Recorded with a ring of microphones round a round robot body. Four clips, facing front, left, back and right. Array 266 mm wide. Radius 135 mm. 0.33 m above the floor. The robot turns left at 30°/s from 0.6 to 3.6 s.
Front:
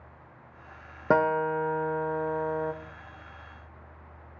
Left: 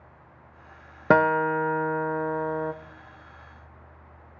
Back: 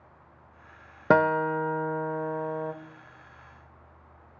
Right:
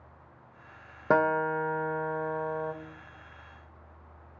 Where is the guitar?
115° left, 0.6 m; by 2.7 s 65° left, 0.6 m.